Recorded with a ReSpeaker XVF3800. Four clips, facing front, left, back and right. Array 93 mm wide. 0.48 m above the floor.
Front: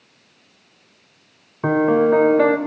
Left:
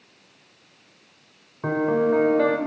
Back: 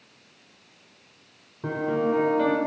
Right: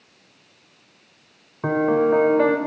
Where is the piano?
10° right, 0.8 m.